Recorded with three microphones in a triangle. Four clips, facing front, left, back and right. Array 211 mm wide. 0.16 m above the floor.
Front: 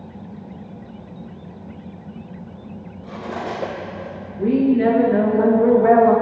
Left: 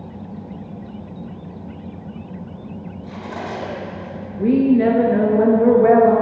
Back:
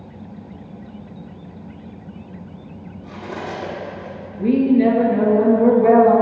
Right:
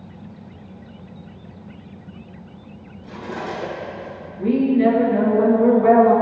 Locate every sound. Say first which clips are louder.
3.0 s cutlery clinking: right 1 dB, front 2 dB; 5° left, 3.5 m
4.4 s a woman speaking: left 2 dB, back 1 dB; 70° left, 2 m